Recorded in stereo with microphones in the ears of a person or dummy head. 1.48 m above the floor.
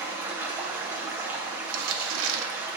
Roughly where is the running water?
Centre.